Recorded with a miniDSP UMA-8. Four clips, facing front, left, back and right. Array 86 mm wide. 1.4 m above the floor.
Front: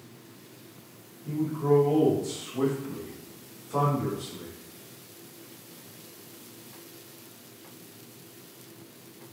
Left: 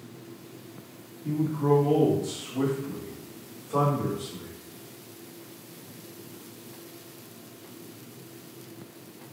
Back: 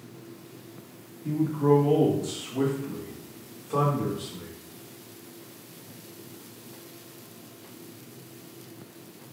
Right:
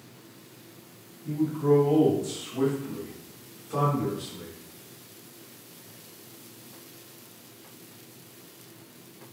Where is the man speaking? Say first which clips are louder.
Right 1 dB, back 3 dB; 155° left, 1.3 m; by 4.5 s 165° right, 2.5 m.